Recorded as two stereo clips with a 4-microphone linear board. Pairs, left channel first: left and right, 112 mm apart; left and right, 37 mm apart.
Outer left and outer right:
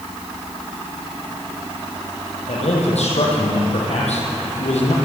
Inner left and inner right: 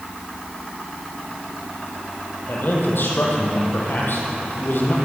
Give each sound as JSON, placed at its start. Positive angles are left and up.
{"t": 2.5, "sound": "a man speaking", "side_deg": 70, "distance_m": 6.5}